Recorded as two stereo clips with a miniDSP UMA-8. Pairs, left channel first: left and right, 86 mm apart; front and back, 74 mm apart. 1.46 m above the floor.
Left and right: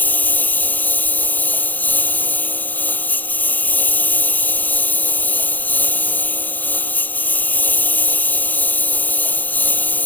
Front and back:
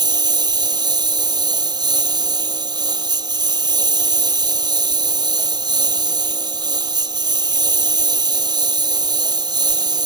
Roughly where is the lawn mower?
Behind.